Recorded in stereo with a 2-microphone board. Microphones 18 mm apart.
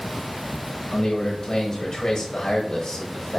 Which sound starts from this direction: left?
A man speaking, at 0.9 s.